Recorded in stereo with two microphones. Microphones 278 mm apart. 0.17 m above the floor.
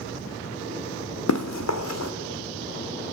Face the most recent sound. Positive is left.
turn(degrees=70)  # may be behind; listen again after turning